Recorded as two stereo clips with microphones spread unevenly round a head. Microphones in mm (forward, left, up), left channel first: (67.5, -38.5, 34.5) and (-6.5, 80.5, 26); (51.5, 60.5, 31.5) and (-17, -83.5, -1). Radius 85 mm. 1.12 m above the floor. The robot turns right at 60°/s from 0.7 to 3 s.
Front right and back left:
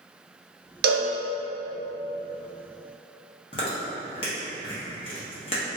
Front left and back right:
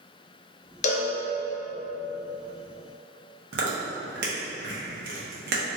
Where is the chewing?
115° right, 0.9 m.